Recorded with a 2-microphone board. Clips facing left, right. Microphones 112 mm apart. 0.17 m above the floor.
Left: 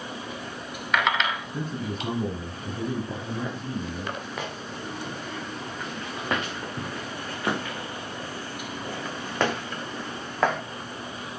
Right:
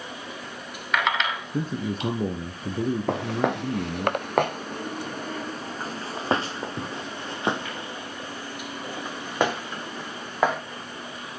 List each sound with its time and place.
1.5 s a man speaking: 45° right (ahead or behind), 2 m
3.1 s footsteps: 85° right, 1.3 m; by 10.6 s 10° right (ahead or behind), 4 m